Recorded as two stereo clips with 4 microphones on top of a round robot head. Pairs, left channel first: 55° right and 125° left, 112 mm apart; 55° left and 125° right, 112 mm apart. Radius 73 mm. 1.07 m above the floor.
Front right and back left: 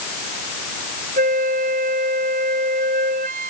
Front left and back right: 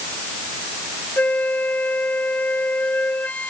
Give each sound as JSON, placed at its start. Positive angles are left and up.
{"t": 1.2, "sound": "a flute", "azimuth_deg": 130}